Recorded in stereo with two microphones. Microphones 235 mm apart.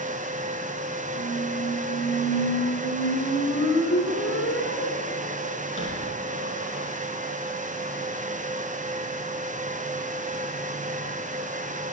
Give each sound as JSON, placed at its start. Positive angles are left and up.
{"t": 1.1, "sound": "a squeak", "side_deg": 65, "distance_m": 5.5}